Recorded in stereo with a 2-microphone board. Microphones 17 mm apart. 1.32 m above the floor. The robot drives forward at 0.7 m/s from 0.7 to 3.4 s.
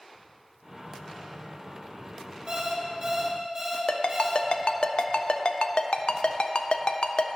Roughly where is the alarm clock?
Right.